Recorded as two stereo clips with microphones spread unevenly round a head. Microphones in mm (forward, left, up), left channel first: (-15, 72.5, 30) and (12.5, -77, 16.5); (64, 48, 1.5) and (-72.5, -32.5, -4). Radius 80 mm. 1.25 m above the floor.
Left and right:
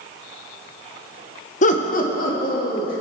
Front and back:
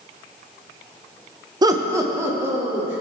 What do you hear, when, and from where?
1.6 s laughter: 145° left, 0.8 m; by 3.0 s 135° left, 3 m